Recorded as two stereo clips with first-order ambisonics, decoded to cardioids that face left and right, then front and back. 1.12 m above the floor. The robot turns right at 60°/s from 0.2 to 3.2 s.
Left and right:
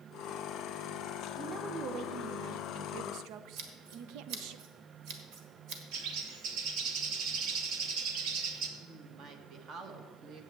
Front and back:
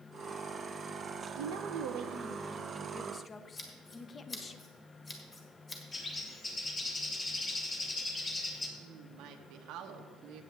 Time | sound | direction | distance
1.4 | a woman speaking | 175° right | 0.6 m
3.6 | scissors | 70° right | 1.4 m
5.9 | a bird | 70° right | 1.1 m
8.8 | a woman speaking | 145° right | 1.2 m